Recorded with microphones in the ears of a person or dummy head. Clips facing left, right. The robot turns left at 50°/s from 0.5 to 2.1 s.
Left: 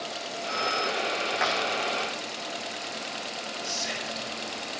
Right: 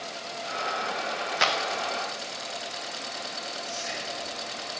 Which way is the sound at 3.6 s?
50° left (ahead or behind).